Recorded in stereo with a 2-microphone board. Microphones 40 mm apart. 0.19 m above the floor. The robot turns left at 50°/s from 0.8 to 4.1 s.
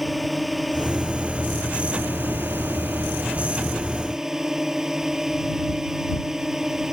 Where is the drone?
5° right; by 6.9 s 170° right.